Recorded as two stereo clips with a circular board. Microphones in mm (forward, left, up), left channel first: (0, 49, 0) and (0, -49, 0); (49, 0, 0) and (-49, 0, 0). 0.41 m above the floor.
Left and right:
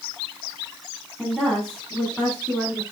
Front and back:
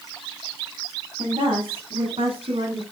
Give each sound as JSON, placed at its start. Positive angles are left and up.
{"t": 1.2, "sound": "a woman speaking", "azimuth_deg": 175, "distance_m": 2.5}